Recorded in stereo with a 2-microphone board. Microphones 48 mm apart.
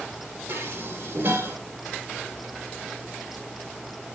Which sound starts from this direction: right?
Dishes clattering, at 0.5 s.